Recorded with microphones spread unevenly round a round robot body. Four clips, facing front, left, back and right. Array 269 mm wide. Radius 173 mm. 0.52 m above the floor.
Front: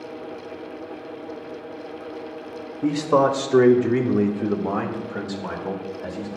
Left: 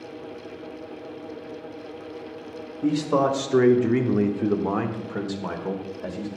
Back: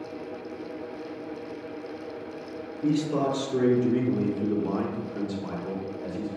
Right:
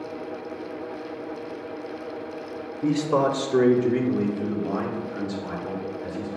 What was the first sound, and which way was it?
A man speaking, 25° right.